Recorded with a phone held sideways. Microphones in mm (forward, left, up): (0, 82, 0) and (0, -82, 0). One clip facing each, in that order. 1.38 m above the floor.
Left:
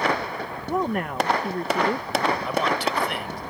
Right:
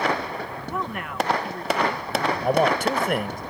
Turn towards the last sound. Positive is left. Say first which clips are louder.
# right 4 dB
turn(degrees=-45)  # may be behind; listen again after turning